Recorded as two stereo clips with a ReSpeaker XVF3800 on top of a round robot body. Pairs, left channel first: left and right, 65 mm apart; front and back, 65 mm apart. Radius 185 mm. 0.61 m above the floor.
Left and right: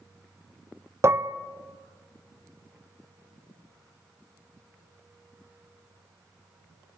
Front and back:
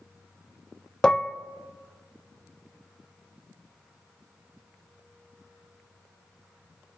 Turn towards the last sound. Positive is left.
turn(degrees=-75)